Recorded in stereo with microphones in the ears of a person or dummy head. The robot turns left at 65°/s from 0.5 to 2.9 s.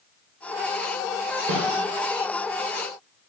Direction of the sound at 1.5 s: 50° right (ahead or behind).